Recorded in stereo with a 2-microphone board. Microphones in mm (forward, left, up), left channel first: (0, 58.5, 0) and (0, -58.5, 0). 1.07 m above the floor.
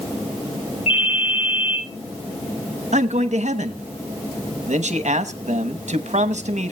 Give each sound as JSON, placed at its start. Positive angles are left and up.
{"t": 0.9, "sound": "a ringtone", "side_deg": 70, "distance_m": 4.5}
{"t": 2.9, "sound": "a man speaking", "side_deg": -80, "distance_m": 0.9}